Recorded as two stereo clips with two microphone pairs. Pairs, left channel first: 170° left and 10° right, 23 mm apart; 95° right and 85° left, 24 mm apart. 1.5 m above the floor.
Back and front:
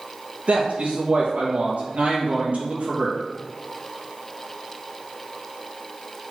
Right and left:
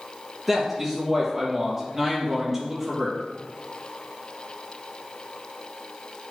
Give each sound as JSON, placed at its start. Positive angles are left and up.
{"t": 0.5, "sound": "a man speaking", "azimuth_deg": 0, "distance_m": 2.5}